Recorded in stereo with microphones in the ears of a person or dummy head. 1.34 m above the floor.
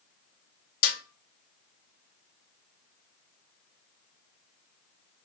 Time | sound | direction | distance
0.8 | a snare drum | 55° left (ahead or behind) | 2 m